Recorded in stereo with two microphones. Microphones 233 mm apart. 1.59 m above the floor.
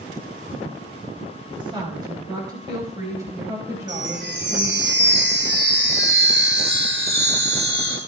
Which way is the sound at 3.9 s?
55° right (ahead or behind).